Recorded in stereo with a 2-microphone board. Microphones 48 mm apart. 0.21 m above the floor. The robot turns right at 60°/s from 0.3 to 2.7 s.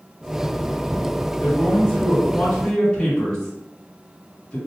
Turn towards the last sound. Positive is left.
turn(degrees=20)  # may be behind; listen again after turning